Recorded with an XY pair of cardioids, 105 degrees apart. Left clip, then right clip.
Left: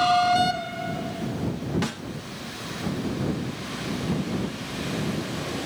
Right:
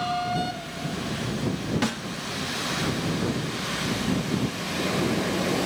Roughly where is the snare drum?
Ahead.